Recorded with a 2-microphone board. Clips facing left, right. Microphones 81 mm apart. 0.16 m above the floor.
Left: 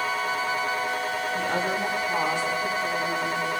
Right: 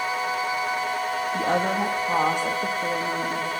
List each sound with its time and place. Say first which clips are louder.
1.3 s a woman speaking: right 5 dB; 75° right (ahead or behind), 8 m